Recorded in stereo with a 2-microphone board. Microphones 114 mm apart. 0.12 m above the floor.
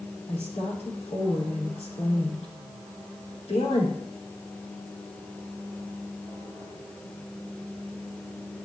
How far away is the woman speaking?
About 5 m.